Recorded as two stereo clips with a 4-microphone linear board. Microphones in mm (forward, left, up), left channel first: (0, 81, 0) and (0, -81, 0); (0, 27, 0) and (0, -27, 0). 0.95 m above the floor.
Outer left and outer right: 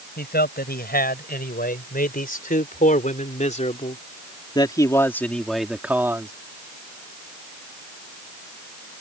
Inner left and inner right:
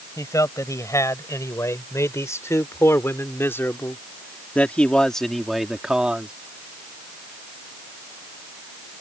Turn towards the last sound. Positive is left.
turn(degrees=-20)  # may be behind; listen again after turning